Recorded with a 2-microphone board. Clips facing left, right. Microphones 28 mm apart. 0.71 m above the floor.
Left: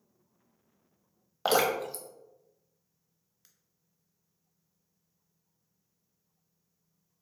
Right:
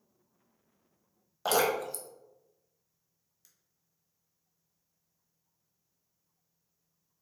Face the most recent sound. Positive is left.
turn(degrees=30)  # may be behind; listen again after turning